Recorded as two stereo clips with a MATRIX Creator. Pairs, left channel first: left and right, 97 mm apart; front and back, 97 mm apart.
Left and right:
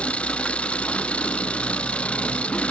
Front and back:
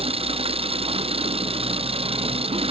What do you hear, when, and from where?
0.0 s an engine running: 170° left